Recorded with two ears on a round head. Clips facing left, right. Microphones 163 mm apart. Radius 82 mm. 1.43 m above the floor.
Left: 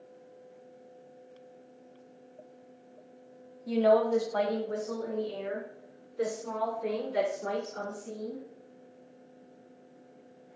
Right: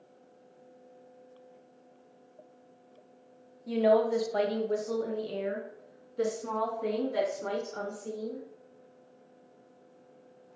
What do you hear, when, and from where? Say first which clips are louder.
3.7 s a woman speaking: left 1 dB; 5° left (ahead or behind), 0.6 m; by 8.4 s 65° right (ahead or behind), 3 m